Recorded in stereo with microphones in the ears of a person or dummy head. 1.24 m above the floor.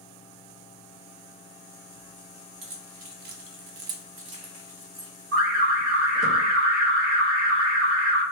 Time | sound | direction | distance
2.6 | keys jangling | 40° right (ahead or behind) | 0.8 m
5.3 | an alarm | 65° right (ahead or behind) | 1.6 m